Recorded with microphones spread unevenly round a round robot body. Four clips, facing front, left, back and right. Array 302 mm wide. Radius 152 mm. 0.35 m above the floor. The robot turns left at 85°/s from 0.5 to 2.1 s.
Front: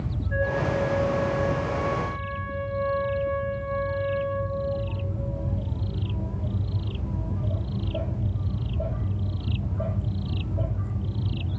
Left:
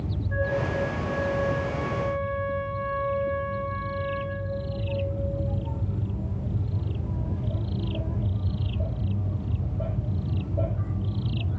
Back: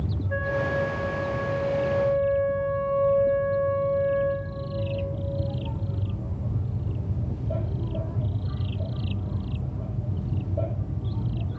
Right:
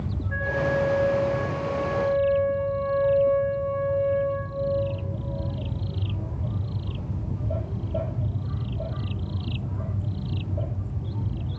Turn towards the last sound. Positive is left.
turn(degrees=70)